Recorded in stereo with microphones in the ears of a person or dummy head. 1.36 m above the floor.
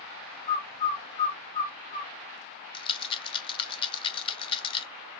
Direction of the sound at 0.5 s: 15° left (ahead or behind).